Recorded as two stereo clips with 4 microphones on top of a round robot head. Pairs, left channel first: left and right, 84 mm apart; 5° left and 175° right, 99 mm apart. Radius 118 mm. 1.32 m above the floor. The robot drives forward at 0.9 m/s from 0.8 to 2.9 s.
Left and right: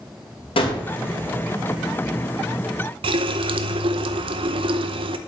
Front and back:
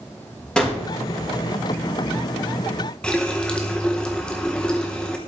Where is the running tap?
75° right, 0.6 m.